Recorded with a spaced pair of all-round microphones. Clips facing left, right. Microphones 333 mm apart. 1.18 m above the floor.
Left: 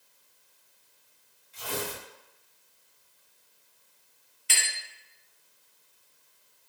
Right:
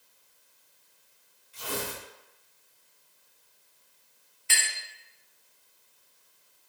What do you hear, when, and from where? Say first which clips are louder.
1.5 s tearing paper: even; 20° right (ahead or behind), 1.6 m
4.5 s a clink: even; 45° left (ahead or behind), 0.6 m